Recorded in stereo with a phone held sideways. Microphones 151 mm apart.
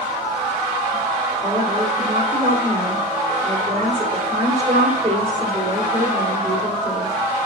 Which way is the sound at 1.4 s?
40° right (ahead or behind).